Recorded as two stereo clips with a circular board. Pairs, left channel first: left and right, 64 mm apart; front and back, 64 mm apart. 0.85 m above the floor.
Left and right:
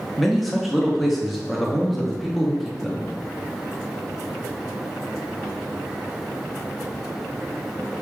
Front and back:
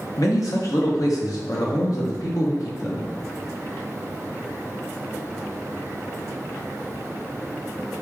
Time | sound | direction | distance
0.2 | a man speaking | straight ahead | 0.9 m